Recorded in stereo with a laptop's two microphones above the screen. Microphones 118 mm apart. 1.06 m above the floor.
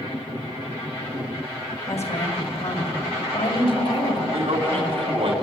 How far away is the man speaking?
About 3.5 m.